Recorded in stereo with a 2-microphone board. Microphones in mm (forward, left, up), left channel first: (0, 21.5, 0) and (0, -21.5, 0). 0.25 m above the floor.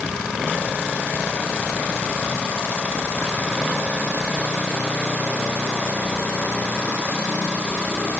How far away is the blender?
No blender in this recording.